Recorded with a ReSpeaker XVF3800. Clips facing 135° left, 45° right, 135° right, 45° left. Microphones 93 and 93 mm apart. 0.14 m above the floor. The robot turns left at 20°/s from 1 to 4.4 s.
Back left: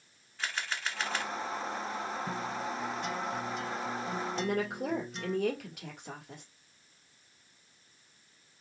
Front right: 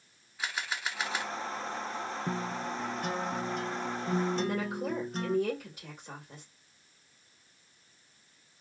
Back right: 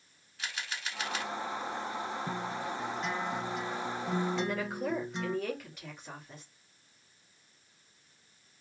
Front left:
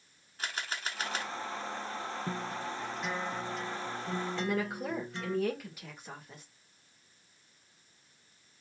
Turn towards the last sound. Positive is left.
turn(degrees=130)